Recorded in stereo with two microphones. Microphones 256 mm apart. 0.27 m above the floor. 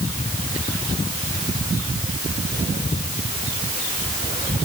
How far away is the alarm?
No alarm in this recording.